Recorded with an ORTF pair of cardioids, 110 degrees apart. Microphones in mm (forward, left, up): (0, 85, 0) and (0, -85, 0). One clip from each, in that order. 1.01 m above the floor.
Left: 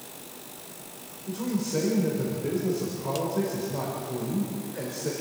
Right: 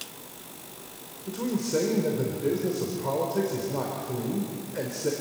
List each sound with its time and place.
1.3 s a man speaking: 30° right, 4 m